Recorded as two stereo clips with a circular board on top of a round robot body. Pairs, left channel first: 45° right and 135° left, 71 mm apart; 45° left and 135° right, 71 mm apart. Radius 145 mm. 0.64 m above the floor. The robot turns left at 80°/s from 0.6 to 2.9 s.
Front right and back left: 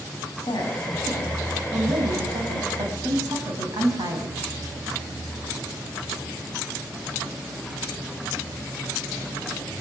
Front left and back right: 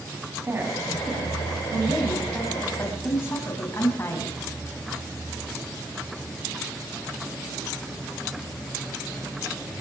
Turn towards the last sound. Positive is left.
turn(degrees=100)